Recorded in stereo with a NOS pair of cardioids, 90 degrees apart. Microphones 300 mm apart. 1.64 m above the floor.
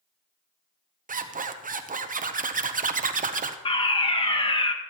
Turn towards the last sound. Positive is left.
turn(degrees=20)